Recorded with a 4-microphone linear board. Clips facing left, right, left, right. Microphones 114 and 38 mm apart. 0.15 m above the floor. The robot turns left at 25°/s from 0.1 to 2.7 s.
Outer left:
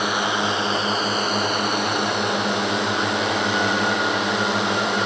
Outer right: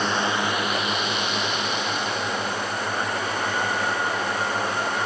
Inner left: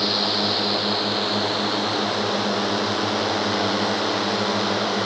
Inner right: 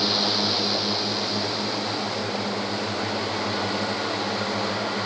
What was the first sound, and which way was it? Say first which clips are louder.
A drone: outer left 1 dB, inner left 1 dB; 170° left.